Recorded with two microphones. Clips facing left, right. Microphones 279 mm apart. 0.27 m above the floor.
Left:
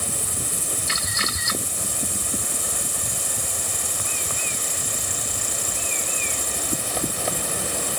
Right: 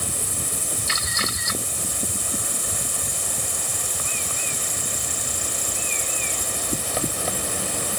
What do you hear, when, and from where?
Only background noise.